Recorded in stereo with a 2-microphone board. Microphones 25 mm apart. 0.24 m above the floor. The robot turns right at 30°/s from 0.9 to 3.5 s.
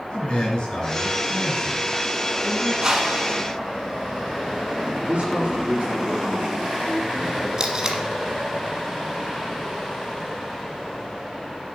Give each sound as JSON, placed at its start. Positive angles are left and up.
{"t": 0.1, "sound": "a man speaking", "azimuth_deg": 50, "distance_m": 4.5}
{"t": 2.8, "sound": "a whoosh", "side_deg": -25, "distance_m": 1.3}
{"t": 5.1, "sound": "a man speaking", "side_deg": -55, "distance_m": 4.0}
{"t": 7.6, "sound": "tape being pulled", "side_deg": -25, "distance_m": 1.2}